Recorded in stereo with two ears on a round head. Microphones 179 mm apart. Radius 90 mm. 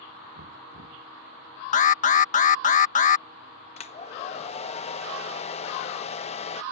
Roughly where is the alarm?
Left.